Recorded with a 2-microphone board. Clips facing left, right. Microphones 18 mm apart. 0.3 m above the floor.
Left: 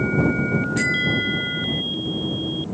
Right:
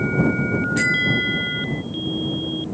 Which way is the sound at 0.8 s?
Centre (ahead or behind).